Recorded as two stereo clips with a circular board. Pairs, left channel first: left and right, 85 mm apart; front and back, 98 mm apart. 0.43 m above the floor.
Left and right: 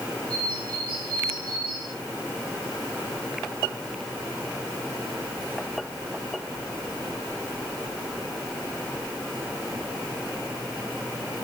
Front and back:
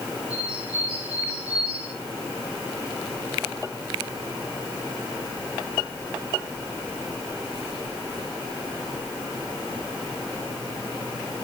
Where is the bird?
155° left, 5 m.